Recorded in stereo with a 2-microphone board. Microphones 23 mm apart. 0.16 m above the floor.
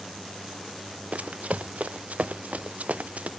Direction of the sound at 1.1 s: 85° right.